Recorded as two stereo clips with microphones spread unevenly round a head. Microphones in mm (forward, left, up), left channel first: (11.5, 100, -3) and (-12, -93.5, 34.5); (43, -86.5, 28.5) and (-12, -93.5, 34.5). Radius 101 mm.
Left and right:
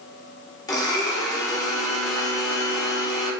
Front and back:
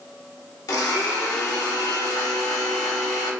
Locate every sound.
0.7 s a blender: 10° left, 1.1 m